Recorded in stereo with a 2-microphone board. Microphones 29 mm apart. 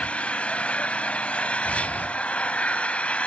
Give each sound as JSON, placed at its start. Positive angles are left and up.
{"t": 0.0, "sound": "an engine running", "side_deg": 45, "distance_m": 0.9}
{"t": 1.6, "sound": "breathing", "side_deg": 65, "distance_m": 2.0}